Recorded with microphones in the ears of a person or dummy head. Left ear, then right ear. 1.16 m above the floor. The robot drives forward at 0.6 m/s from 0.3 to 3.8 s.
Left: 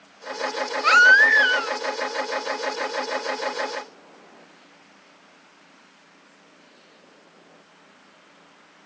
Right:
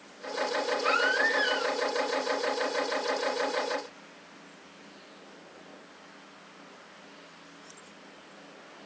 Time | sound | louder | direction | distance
0.8 | a baby crying | left 14 dB | 70° left (ahead or behind) | 0.6 m